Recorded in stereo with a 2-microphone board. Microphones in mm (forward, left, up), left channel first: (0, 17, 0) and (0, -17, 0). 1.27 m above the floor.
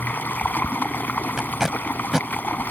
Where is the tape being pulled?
15° right (ahead or behind).